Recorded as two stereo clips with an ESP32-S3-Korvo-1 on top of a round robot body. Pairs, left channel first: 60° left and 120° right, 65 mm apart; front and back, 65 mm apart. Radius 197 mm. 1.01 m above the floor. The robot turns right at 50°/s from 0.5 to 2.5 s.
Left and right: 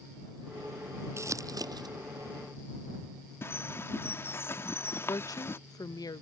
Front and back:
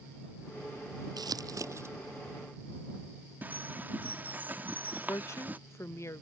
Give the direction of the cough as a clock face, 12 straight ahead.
No cough in this recording.